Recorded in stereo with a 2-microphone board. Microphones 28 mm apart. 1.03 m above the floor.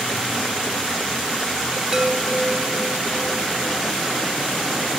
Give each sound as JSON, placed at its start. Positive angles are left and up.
{"t": 1.9, "sound": "a chime", "side_deg": -15}